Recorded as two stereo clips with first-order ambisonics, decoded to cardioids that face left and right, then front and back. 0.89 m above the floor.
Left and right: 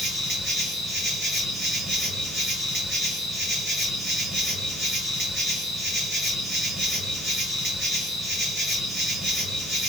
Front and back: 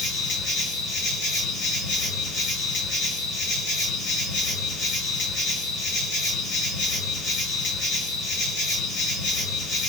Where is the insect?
Straight ahead, 2 m.